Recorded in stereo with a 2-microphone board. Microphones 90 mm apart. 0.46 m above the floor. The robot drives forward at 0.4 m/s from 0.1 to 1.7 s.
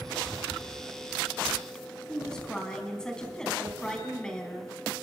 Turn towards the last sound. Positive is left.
turn(degrees=10)  # may be behind; listen again after turning